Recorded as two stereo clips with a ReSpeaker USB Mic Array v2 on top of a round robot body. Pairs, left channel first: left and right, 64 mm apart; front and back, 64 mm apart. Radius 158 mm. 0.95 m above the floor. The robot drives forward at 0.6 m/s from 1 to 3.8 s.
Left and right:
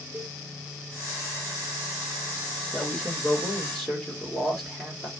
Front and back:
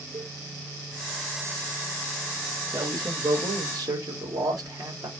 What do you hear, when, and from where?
0.1 s a cowbell: 175° left, 1.3 m
2.7 s a man speaking: 165° left, 2 m